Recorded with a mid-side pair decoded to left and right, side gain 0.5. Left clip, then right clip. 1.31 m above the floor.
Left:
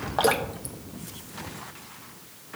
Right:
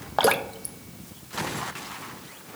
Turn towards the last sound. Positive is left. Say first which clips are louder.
# right 2 dB
turn(degrees=-25)